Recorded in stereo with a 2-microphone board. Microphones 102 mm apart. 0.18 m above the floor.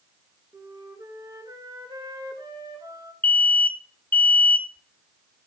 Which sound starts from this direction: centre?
An alarm, at 3.2 s.